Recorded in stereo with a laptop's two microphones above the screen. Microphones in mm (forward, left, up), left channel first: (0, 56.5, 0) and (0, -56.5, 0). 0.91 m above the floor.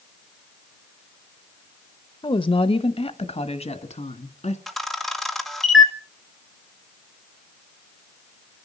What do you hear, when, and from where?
2.2 s a woman speaking: 45° left (ahead or behind), 0.9 m; by 4.6 s 70° left (ahead or behind), 2.0 m
4.7 s a camera shutter: centre (ahead or behind), 1.8 m